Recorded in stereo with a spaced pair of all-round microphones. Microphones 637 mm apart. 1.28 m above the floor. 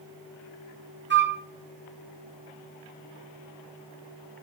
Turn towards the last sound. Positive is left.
turn(degrees=-20)  # may be behind; listen again after turning